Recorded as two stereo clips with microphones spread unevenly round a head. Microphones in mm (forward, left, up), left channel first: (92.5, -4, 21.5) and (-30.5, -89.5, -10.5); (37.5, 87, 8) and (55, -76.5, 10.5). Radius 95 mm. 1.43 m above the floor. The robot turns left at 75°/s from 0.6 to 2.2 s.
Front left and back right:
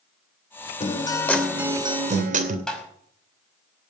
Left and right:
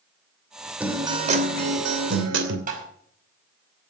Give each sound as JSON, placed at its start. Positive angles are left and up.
{"t": 0.8, "sound": "a guitar", "azimuth_deg": 0, "distance_m": 2.5}
{"t": 2.7, "sound": "tapping", "azimuth_deg": -50, "distance_m": 5.5}